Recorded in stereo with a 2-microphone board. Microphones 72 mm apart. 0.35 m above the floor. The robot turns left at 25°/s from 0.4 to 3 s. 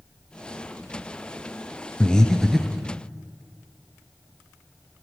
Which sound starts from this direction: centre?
Breathing, at 2.0 s.